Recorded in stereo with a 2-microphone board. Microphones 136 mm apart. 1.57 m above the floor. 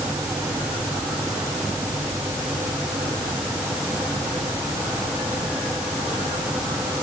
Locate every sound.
Only background noise.